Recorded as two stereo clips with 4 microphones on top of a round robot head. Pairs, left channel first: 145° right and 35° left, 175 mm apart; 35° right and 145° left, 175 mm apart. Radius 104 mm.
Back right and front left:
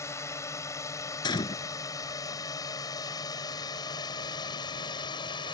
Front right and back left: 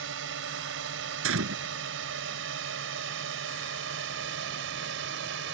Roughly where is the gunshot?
Behind left.